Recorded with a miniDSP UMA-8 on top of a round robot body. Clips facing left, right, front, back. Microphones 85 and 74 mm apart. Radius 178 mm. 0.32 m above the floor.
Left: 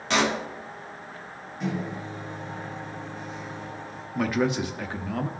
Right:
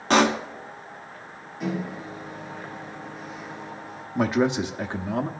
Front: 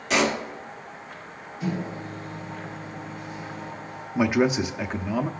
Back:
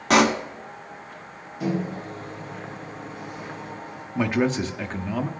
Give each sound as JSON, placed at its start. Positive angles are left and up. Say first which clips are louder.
{"t": 0.1, "sound": "a pop", "louder": "right 5 dB, back 5 dB", "azimuth_deg": -140, "distance_m": 0.8}
{"t": 1.6, "sound": "a microwave", "louder": "right 1 dB, back 3 dB", "azimuth_deg": -175, "distance_m": 3.0}
{"t": 4.2, "sound": "a man speaking", "louder": "right 3 dB, front 1 dB", "azimuth_deg": -70, "distance_m": 1.0}